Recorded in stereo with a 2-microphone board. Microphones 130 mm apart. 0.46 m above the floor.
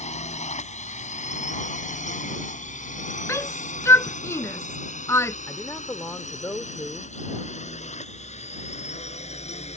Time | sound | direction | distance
0.0 | a drone | 65° left (ahead or behind) | ?
3.3 | a shout | 20° left (ahead or behind) | ?
5.5 | a man speaking | 20° left (ahead or behind) | ?